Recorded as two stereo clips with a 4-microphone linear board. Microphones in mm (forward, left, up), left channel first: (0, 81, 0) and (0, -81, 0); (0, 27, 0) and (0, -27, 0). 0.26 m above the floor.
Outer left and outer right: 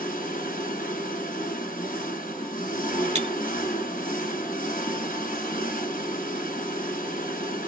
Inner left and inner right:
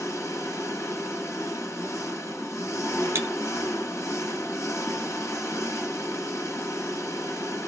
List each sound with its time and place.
0.0 s an engine running: 60° left (ahead or behind), 1.4 m
3.1 s breaking glass: 45° right (ahead or behind), 0.7 m